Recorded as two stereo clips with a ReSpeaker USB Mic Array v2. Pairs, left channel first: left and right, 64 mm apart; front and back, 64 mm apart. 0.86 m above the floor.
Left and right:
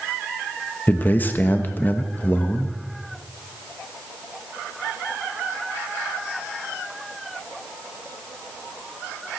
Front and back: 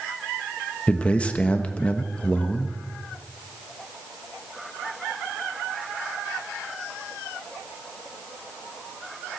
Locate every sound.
0.9 s a man speaking: 55° left, 1.1 m